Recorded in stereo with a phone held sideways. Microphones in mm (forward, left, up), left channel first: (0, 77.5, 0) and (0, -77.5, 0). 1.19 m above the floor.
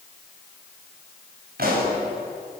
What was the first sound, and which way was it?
A pop, 65° right (ahead or behind).